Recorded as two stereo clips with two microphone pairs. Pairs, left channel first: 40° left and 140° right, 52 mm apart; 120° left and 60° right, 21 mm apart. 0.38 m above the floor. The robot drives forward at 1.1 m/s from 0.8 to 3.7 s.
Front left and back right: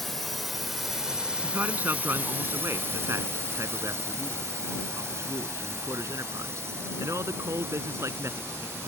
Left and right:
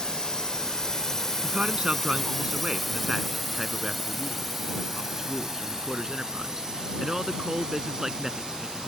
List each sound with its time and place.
0.0 s a drone: 125° left; by 8.9 s 100° right
1.4 s a man speaking: 85° right; by 8.9 s 120° right